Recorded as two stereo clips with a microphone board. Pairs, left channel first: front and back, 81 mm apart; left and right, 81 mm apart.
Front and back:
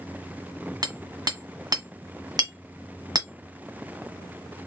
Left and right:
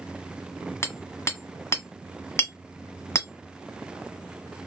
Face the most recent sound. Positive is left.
turn(degrees=145)